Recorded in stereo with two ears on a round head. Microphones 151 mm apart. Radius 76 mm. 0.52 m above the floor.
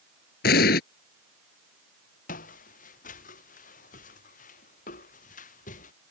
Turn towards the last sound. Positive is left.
turn(degrees=50)  # may be behind; listen again after turning